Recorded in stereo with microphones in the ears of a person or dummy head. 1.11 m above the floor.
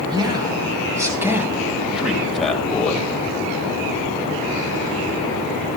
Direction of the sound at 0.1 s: 25° right (ahead or behind).